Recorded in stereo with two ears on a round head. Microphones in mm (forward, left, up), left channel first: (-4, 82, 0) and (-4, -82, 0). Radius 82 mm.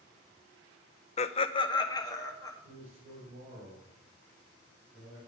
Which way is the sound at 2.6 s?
35° right (ahead or behind).